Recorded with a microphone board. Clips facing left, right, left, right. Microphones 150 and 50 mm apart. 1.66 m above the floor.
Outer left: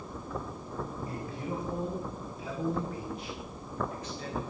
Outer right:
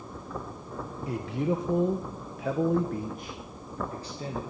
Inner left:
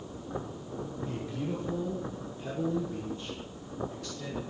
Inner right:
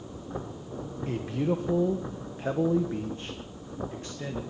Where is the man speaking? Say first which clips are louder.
Outer right 8 dB, inner right 9 dB; 75° right (ahead or behind), 1.3 m; by 4.4 s 30° right (ahead or behind), 1.8 m.